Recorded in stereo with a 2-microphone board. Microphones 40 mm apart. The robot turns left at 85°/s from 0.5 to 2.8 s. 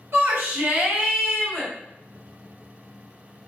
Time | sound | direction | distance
0.1 | a shout | 115° right | 1.4 m